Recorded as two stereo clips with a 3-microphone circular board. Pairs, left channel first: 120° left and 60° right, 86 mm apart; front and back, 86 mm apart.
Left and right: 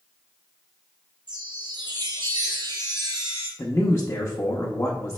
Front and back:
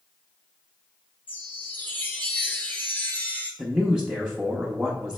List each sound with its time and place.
1.3 s a chime: 65° right, 1.1 m
3.6 s a man speaking: 115° left, 0.7 m